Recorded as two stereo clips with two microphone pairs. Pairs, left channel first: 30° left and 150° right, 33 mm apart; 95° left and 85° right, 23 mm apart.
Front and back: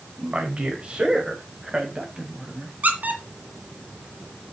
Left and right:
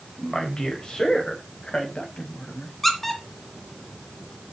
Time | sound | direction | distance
0.2 | a man speaking | 155° left | 3.5 m
2.8 | a squeak | 175° left | 2.5 m